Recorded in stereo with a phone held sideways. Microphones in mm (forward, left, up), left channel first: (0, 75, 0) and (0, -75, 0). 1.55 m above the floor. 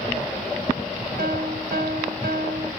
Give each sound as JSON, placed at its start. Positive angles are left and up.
{"t": 1.2, "sound": "a piano", "side_deg": -85, "distance_m": 2.5}